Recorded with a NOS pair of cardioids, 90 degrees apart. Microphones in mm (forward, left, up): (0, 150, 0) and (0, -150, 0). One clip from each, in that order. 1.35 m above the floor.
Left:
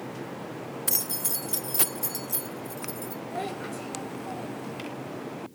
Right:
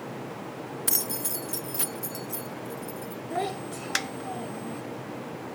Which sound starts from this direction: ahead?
Keys jangling, at 0.9 s.